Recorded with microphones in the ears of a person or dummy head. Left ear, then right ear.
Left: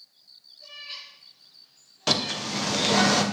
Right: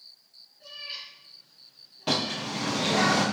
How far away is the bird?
About 1.6 m.